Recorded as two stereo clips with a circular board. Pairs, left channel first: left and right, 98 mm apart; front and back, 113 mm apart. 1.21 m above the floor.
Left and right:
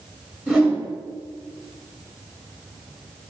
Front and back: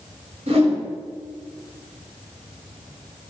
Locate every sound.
0.5 s a whoosh: 170° right, 1.9 m